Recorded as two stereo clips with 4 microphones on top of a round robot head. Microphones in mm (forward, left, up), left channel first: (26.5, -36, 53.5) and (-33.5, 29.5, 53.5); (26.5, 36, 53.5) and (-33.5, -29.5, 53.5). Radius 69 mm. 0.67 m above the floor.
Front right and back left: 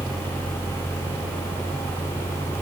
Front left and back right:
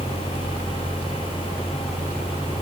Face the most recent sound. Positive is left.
No sound to turn to.